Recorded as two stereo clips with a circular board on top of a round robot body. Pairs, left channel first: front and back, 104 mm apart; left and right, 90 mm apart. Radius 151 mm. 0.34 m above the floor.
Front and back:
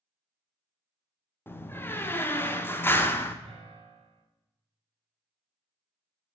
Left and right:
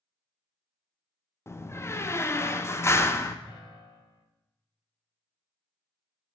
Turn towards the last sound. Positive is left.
turn(degrees=140)